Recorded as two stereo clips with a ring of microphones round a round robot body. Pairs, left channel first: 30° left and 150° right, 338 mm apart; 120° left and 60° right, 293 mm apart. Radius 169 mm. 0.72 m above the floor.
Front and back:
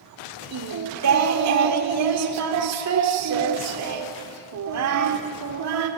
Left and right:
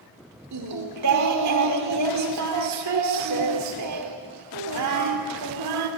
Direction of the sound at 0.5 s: 105° right.